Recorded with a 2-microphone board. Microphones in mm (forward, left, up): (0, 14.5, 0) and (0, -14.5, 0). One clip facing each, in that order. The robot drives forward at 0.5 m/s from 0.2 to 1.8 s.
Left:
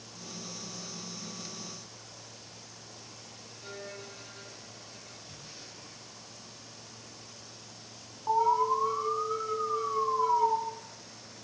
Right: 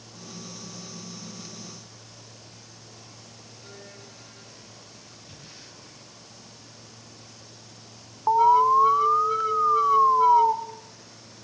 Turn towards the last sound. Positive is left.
turn(degrees=-45)  # may be behind; listen again after turning